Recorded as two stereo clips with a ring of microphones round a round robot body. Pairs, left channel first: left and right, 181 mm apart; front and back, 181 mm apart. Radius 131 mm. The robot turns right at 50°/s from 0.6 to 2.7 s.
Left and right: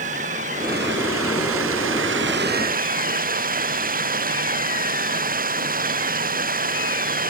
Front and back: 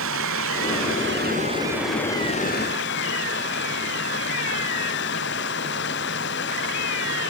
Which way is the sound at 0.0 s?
155° right.